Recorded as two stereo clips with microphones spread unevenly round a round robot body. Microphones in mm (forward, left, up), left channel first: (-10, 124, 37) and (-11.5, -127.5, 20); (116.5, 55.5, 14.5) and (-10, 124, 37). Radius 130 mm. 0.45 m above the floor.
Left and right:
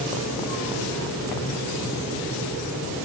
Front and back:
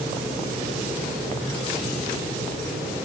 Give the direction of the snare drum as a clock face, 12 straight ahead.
No snare drum in this recording.